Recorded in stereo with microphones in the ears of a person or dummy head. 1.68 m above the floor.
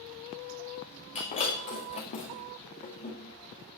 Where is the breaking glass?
30° left (ahead or behind), 2 m.